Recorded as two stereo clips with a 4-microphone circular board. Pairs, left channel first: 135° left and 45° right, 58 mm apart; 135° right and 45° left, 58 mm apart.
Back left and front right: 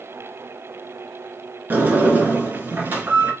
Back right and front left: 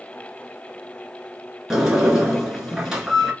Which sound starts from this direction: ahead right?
A sliding door, at 1.7 s.